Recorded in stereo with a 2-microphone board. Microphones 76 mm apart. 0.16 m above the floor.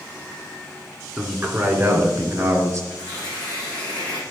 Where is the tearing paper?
10° left (ahead or behind), 3.5 m.